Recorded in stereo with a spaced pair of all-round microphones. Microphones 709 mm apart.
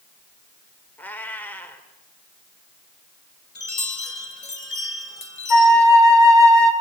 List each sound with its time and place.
1.0 s a cat meowing: 5° left (ahead or behind), 2 m
3.5 s a chime: 60° left (ahead or behind), 1.9 m
5.5 s a flute: 70° left (ahead or behind), 2.5 m